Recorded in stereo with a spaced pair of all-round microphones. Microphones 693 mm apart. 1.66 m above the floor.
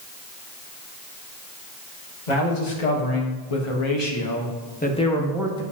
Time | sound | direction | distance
2.3 | a man speaking | 80° left | 2 m